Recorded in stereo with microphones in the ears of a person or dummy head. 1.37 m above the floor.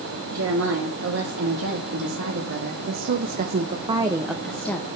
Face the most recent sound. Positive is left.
turn(degrees=10)  # may be behind; listen again after turning